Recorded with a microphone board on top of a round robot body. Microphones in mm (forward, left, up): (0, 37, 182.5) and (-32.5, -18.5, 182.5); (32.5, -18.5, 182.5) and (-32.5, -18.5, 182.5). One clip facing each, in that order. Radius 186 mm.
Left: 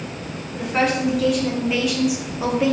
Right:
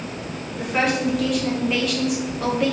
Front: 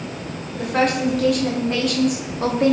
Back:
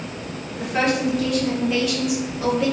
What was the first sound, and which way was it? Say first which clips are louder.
A woman speaking: left 1 dB, front 2 dB; 30° right.